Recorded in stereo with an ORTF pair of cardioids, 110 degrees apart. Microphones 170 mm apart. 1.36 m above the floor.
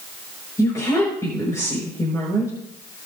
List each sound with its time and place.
0.6 s a woman speaking: 20° left, 5 m